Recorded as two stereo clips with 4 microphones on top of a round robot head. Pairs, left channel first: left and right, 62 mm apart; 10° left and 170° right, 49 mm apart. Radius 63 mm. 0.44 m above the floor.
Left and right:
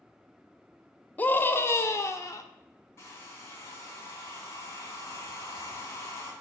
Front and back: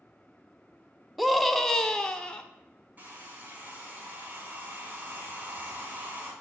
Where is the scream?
100° left, 0.8 m; by 2.4 s 80° left, 1.3 m.